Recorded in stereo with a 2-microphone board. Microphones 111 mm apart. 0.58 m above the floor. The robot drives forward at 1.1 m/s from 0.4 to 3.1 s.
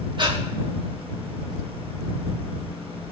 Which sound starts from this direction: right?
Breathing, at 0.2 s.